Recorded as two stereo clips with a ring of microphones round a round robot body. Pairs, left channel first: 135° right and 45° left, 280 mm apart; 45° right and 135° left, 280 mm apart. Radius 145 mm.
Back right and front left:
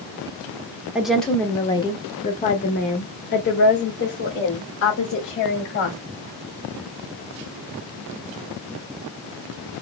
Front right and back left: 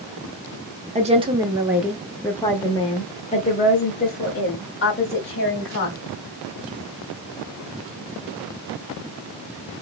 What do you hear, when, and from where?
0.9 s a woman speaking: 125° left, 1.0 m; by 6.0 s 90° right, 2.5 m